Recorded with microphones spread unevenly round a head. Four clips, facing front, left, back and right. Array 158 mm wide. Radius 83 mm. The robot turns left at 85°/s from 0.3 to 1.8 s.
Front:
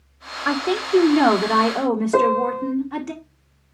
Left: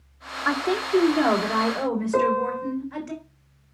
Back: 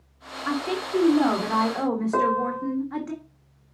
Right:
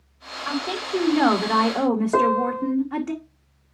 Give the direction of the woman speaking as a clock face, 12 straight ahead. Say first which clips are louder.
Left 4 dB, front 6 dB; 11 o'clock.